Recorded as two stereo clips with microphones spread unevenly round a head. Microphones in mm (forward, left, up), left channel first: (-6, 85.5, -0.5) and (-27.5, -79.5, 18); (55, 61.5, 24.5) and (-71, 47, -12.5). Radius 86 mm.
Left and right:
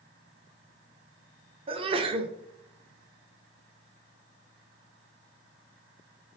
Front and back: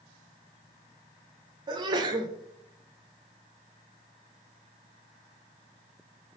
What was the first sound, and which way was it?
A sneeze, 150° right.